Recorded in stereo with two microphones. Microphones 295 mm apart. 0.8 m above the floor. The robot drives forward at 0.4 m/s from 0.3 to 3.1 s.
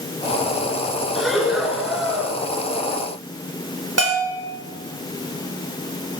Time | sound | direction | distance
1.1 | breathing | centre (ahead or behind) | 2 m
4.0 | a bell | 55° right (ahead or behind) | 2.5 m